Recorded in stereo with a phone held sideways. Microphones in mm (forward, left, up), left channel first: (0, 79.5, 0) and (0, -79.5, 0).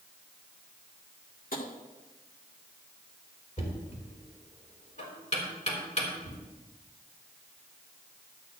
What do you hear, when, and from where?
1.5 s tapping: 65° left (ahead or behind), 1.8 m
3.6 s knocking: 50° left (ahead or behind), 3.5 m